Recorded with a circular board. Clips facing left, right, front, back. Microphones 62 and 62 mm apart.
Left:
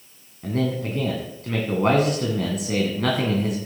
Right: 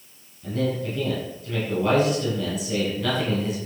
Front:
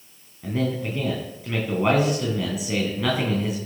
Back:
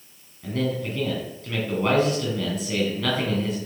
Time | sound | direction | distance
0.4 | a man speaking | 75° left | 2.5 m